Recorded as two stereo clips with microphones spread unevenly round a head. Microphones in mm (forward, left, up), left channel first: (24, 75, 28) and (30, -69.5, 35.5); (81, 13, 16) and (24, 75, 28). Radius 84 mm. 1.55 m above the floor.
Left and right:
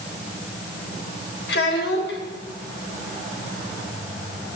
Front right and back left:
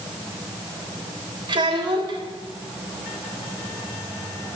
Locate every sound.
1.5 s a child speaking: 115° left, 3 m